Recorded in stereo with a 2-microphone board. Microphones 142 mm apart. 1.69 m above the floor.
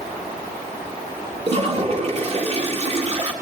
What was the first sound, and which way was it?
A toilet flushing, 45° right (ahead or behind).